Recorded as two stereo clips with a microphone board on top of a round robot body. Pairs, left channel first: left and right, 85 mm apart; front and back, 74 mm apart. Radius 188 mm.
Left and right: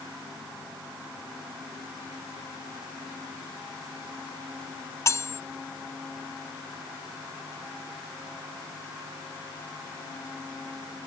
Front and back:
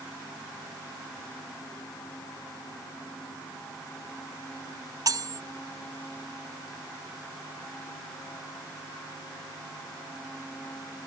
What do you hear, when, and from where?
5.1 s cutlery clinking: 145° left